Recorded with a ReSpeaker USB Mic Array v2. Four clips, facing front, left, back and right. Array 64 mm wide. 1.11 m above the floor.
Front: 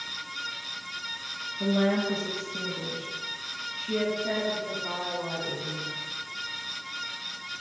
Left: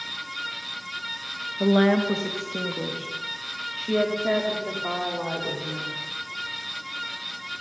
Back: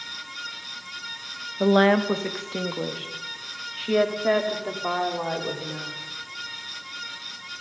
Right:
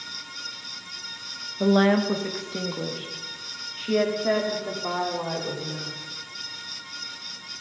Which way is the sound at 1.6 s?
175° right.